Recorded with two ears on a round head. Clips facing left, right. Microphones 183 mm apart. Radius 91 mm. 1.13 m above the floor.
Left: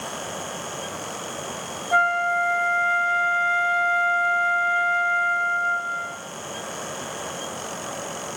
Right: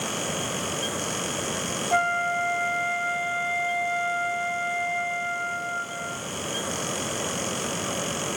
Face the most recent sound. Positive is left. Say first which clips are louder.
# left 3 dB
turn(degrees=10)  # may be behind; listen again after turning